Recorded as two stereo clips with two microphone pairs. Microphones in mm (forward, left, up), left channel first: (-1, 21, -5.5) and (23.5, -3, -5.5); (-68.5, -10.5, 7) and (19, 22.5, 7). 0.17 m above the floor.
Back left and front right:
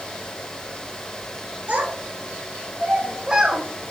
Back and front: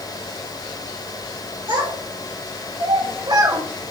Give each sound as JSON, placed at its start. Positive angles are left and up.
{"t": 1.7, "sound": "a child speaking", "azimuth_deg": -25, "distance_m": 2.0}